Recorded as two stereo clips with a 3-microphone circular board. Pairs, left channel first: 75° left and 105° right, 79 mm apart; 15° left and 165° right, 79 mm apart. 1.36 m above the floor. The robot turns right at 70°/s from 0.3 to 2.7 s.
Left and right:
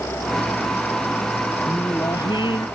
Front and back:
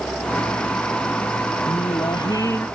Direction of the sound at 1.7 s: 5° left.